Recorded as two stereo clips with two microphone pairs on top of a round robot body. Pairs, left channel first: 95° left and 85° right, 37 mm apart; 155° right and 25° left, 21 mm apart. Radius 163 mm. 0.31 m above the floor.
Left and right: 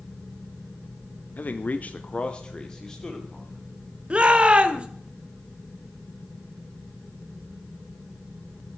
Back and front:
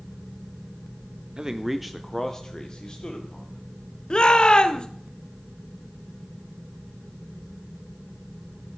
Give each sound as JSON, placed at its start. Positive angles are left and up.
{"t": 1.4, "sound": "a man speaking", "azimuth_deg": 75, "distance_m": 1.1}
{"t": 4.1, "sound": "a shout", "azimuth_deg": -130, "distance_m": 1.4}